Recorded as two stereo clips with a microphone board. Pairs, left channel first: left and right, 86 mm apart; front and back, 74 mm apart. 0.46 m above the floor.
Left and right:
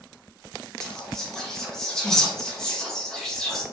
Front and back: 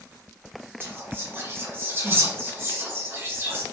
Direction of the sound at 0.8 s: 170° left.